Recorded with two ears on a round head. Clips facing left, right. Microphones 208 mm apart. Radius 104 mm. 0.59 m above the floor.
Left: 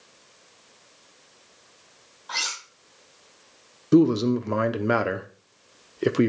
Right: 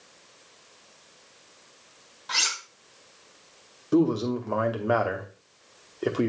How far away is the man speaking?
About 0.8 m.